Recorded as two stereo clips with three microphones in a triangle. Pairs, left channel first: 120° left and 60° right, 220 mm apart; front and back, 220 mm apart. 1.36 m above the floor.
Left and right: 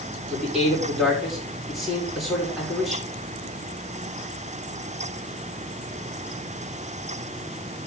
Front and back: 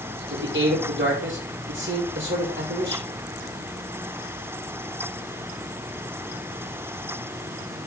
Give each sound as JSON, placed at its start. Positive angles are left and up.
{"t": 0.3, "sound": "a man speaking", "azimuth_deg": -150, "distance_m": 5.0}